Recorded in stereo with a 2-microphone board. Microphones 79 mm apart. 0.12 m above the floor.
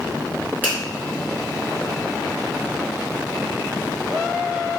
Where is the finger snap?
20° right (ahead or behind), 1.4 m.